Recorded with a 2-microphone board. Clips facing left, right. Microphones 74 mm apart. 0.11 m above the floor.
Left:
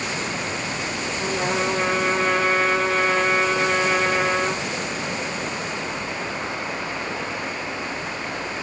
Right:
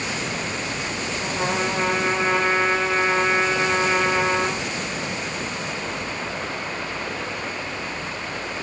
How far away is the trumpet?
About 3 m.